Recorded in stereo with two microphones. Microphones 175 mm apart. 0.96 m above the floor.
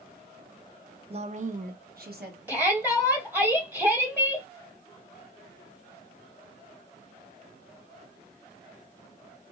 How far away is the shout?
About 1.4 m.